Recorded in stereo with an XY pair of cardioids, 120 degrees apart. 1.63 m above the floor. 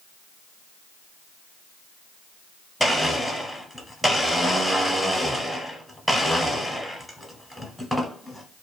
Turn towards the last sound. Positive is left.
turn(degrees=5)